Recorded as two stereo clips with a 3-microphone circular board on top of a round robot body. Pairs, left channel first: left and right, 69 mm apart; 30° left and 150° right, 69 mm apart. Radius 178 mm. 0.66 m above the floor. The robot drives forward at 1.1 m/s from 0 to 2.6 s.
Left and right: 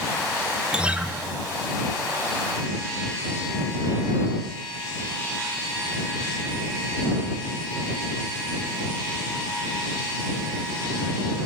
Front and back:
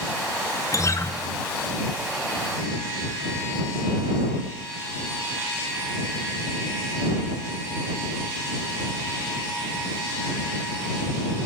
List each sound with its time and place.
0.7 s a guitar: 15° right, 0.9 m; by 1.1 s 25° right, 0.5 m